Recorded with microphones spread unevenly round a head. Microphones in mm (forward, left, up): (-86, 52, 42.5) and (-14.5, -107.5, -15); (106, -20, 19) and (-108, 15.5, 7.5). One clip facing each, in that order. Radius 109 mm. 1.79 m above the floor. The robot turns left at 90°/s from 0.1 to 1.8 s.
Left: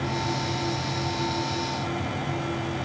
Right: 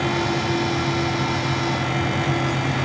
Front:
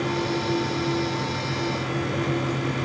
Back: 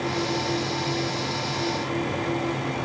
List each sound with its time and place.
Only background noise.